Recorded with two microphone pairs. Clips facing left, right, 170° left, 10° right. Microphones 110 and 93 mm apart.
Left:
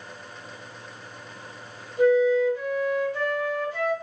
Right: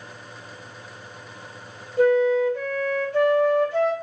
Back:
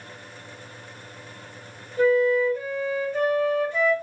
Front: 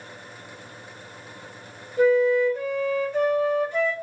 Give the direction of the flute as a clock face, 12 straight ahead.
3 o'clock.